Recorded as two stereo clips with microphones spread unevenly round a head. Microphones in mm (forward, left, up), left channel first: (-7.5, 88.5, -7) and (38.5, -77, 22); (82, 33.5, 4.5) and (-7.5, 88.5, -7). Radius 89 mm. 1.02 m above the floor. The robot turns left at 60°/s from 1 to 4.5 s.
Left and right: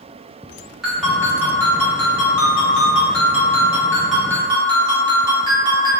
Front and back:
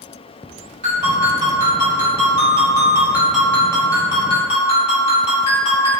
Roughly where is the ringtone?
Behind.